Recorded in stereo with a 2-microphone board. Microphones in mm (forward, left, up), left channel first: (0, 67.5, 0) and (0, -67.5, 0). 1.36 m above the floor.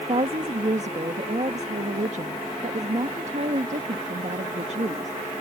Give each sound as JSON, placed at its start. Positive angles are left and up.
{"t": 0.1, "sound": "a woman speaking", "side_deg": -55}